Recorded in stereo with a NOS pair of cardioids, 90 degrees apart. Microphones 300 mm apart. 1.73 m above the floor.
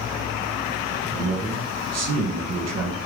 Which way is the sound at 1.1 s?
60° right.